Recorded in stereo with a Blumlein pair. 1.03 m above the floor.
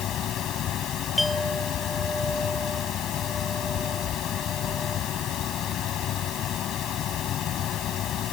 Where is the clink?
5° left.